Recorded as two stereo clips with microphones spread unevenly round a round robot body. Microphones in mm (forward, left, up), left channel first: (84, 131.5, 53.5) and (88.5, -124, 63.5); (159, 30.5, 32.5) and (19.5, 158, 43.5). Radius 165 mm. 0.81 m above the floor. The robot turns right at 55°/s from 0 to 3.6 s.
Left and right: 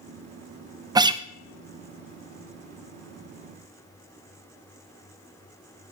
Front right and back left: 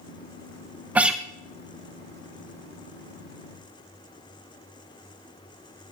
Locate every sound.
0.9 s a guitar: 145° right, 0.5 m; by 1.2 s 130° right, 0.5 m